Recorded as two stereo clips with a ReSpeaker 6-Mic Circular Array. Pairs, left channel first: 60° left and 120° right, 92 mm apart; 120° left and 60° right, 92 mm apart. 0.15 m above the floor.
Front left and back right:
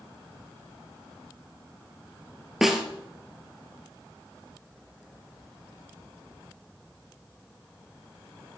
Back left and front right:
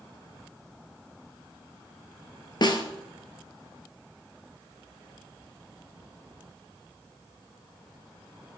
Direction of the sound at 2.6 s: 155° left.